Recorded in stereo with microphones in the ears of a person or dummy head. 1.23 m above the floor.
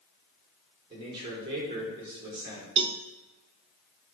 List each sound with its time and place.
0.9 s a man speaking: 25° right (ahead or behind), 4.5 m
2.8 s a cowbell: 25° right (ahead or behind), 0.6 m